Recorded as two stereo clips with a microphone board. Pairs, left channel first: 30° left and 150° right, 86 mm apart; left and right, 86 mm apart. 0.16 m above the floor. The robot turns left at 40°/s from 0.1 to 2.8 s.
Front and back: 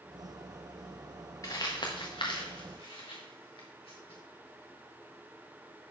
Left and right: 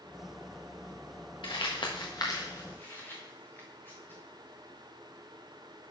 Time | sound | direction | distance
1.4 | crumpling | 80° left | 3 m